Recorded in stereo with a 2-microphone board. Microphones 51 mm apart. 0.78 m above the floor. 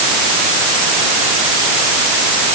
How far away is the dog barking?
No dog barking in this recording.